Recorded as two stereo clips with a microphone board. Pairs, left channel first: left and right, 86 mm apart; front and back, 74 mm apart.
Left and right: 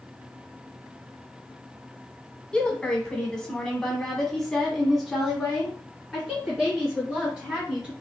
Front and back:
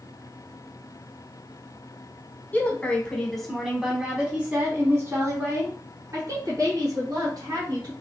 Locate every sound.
2.5 s a woman speaking: 25° left, 1.4 m; by 7.9 s 175° right, 2.5 m